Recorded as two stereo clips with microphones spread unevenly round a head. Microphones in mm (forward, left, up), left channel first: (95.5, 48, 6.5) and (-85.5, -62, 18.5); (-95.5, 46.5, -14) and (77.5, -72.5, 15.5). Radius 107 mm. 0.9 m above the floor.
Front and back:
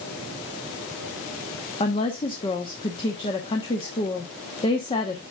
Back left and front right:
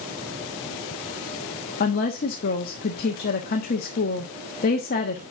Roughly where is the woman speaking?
Left.